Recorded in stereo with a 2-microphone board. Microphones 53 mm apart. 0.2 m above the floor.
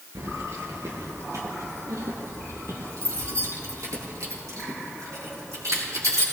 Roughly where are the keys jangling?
Right.